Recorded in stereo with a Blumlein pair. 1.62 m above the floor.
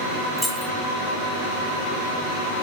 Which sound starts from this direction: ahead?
Keys jangling, at 0.4 s.